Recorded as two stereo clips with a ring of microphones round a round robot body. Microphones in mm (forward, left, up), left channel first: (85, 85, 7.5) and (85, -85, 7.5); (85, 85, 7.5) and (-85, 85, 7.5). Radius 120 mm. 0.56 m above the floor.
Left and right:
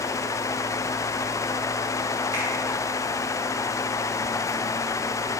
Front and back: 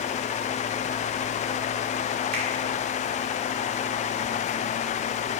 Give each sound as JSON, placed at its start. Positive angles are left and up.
{"t": 2.3, "sound": "a finger snap", "azimuth_deg": -160, "distance_m": 1.0}